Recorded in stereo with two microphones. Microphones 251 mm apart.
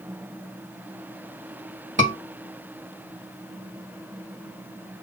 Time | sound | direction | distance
2.0 | a scream | 50° right (ahead or behind) | 2.5 m